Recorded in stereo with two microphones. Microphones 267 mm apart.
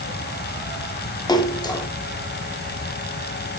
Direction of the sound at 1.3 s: 15° left (ahead or behind).